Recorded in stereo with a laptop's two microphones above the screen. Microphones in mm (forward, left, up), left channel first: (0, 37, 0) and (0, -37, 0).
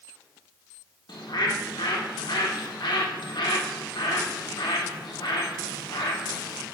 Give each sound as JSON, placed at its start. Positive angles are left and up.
{"t": 1.1, "sound": "a bird", "side_deg": 85, "distance_m": 1.5}